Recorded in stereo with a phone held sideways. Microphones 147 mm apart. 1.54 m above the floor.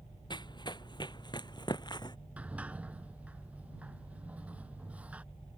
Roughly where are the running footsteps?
Left.